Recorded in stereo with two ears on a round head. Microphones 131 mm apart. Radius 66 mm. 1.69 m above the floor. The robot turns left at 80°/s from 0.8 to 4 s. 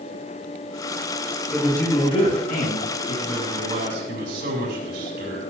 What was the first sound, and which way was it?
A man speaking, 175° right.